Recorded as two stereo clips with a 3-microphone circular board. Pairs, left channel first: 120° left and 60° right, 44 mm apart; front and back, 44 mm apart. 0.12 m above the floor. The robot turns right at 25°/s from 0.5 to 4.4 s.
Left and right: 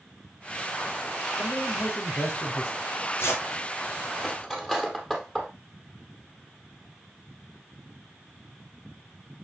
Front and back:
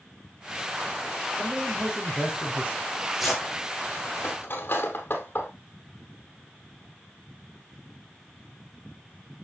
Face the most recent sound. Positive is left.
turn(degrees=40)